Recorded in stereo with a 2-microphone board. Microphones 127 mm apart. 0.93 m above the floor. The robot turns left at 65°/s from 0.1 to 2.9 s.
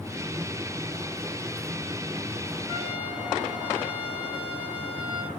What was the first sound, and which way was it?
A trumpet, 20° left (ahead or behind).